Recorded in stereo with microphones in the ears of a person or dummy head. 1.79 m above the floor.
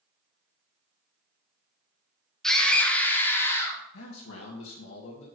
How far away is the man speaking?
About 1.8 m.